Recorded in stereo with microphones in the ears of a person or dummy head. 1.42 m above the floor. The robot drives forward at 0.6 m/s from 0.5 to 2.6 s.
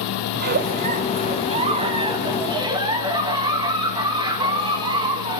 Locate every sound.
0.3 s a giggle: 40° right (ahead or behind), 0.9 m; by 5.4 s 15° right (ahead or behind), 2.0 m